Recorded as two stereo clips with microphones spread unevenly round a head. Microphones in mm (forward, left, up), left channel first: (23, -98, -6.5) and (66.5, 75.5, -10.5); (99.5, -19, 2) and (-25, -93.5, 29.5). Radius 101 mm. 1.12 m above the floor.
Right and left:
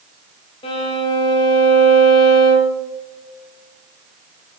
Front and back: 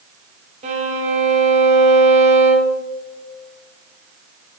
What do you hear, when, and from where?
0.6 s a violin: 160° right, 1.0 m